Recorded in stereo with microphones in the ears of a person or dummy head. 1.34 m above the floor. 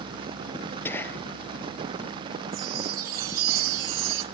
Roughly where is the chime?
Right.